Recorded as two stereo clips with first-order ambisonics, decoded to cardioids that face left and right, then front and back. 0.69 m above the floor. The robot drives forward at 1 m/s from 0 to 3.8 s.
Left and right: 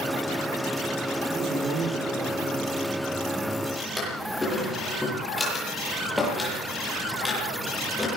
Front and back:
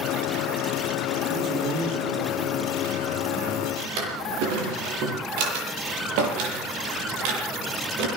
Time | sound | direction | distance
1.3 | a man speaking | 145° right | 9.5 m
3.8 | a drawer | 175° left | 9.5 m